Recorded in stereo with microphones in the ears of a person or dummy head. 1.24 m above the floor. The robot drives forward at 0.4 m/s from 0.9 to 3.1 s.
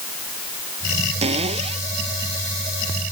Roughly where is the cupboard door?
Right.